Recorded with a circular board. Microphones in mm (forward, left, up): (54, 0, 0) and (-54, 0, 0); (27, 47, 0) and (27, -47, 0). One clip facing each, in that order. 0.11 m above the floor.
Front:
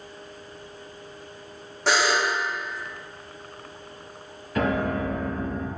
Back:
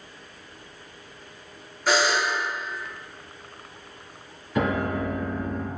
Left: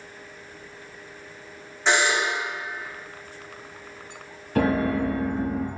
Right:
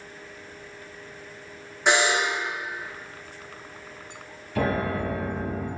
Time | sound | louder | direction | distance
1.9 | a buzzer | even, even | 15° right | 2.5 m
4.5 | a piano | even, left 4 dB | 100° left | 1.8 m